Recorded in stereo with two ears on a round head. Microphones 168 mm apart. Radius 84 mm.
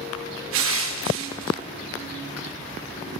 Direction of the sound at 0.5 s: 80° right.